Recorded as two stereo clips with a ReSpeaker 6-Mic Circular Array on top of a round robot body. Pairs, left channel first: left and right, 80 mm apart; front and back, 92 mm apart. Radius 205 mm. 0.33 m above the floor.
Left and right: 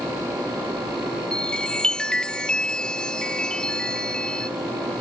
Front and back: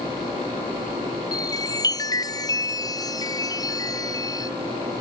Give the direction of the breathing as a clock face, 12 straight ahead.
I don't hear breathing.